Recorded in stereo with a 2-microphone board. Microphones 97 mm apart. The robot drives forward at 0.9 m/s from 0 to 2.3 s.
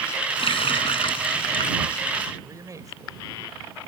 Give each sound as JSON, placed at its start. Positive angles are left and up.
{"t": 0.4, "sound": "a running tap", "side_deg": 65}
{"t": 2.4, "sound": "a man speaking", "side_deg": -35}